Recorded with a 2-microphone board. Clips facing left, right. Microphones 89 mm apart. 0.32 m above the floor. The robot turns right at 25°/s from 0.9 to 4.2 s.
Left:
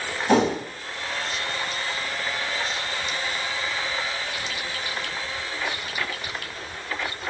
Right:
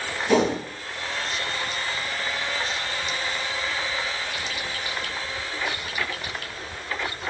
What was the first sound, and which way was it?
A whoosh, 35° left (ahead or behind).